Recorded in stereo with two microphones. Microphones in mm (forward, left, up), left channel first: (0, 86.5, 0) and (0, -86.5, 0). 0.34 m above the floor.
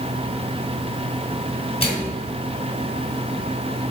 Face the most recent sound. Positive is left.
turn(degrees=35)  # may be behind; listen again after turning